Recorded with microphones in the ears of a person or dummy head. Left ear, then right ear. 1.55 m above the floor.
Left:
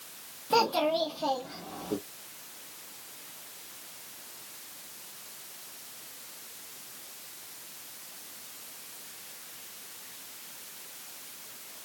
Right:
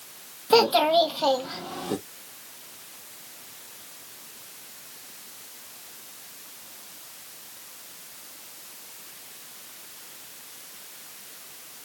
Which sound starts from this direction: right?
A child speaking, at 0.5 s.